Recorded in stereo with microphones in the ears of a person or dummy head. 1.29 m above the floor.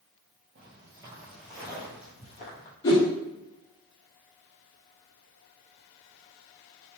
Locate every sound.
0.6 s footsteps: 30° right (ahead or behind), 1.6 m; by 2.7 s 45° left (ahead or behind), 2 m
2.8 s a whoosh: 20° left (ahead or behind), 0.8 m